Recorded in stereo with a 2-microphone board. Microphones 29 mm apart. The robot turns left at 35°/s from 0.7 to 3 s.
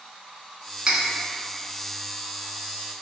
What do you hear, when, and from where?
0.9 s cutlery clinking: 25° right (ahead or behind), 0.6 m